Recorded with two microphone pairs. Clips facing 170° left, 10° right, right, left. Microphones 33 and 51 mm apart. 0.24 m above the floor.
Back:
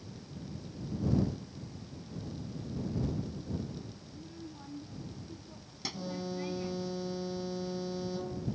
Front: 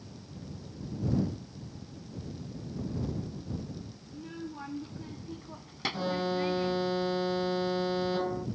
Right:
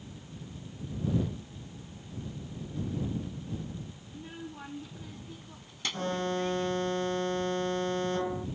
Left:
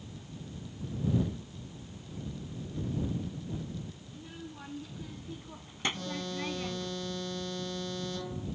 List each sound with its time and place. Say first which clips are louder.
4.1 s a child speaking: front 5 dB, right 2 dB; 30° right; by 6.9 s 65° left
5.9 s an alarm: front 8 dB, right 6 dB; 40° right